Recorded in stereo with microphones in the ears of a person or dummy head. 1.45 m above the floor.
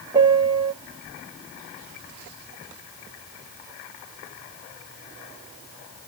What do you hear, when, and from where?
0.1 s a piano: 10° right (ahead or behind), 0.7 m